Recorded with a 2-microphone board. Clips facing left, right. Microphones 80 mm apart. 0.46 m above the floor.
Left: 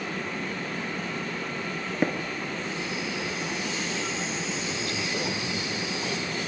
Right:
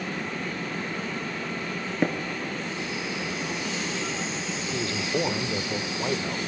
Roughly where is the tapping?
Centre.